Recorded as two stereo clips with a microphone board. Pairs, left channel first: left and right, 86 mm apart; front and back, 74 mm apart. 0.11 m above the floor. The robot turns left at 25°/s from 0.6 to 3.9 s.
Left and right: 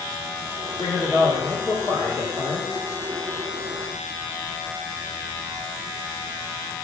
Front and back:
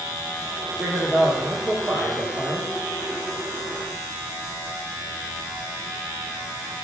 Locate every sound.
0.8 s a man speaking: 125° left, 1.9 m; by 2.6 s 75° left, 1.9 m